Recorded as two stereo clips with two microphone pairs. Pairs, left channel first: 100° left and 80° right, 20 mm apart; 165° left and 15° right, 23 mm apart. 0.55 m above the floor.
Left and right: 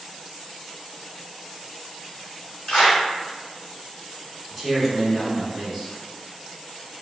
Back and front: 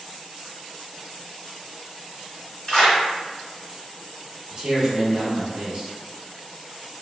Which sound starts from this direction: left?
A clap, at 2.7 s.